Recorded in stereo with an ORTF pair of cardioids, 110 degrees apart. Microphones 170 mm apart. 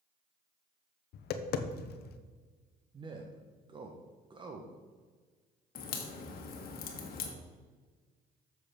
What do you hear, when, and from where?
1.1 s tapping: 65° left, 0.9 m
2.9 s a man speaking: 30° right, 1.2 m
5.8 s a crack: 60° left, 1.7 m